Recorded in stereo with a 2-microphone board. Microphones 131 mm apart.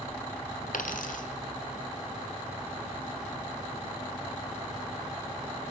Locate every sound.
0.7 s a dropped coin: 80° left, 1.5 m